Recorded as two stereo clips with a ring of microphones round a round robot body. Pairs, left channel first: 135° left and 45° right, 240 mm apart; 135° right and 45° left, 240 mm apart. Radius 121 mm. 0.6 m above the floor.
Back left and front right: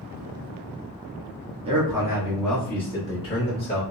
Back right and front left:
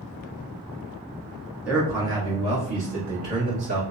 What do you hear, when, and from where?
1.6 s a man speaking: 30° right, 0.9 m; by 3.8 s 80° left, 1.2 m